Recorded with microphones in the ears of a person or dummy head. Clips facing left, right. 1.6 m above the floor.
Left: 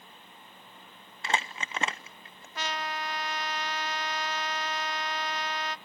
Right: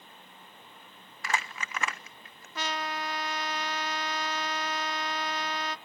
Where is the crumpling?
25° left (ahead or behind), 0.7 m.